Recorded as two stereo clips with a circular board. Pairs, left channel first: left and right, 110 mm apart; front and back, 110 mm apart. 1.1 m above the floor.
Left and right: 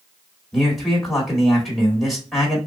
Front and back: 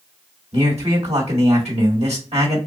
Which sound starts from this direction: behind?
A man speaking, at 0.5 s.